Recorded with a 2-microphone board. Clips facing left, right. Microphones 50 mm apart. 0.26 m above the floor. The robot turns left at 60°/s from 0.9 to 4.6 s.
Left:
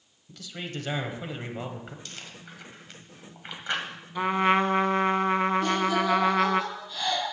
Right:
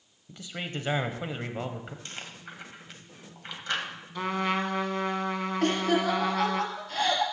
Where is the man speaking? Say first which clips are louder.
Right 1 dB; 25° right (ahead or behind), 0.9 m; by 1.9 s 5° right (ahead or behind), 0.9 m.